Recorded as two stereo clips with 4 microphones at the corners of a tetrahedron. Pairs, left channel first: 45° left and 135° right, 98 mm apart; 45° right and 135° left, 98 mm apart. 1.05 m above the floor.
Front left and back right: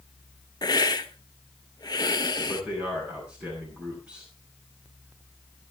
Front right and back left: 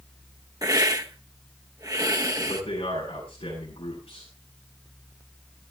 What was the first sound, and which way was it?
A hiss, 90° left.